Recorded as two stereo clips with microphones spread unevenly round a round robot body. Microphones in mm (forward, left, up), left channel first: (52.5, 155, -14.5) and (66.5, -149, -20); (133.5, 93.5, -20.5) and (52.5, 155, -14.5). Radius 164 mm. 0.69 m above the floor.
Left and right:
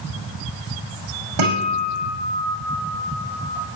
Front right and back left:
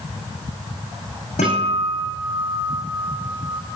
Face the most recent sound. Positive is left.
turn(degrees=-80)